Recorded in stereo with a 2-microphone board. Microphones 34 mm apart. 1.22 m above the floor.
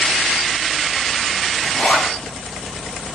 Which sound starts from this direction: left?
A zipper, at 1.6 s.